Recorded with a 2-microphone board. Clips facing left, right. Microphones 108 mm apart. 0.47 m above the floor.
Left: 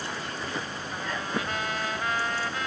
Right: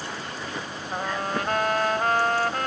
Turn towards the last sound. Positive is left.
turn(degrees=-55)  # may be behind; listen again after turning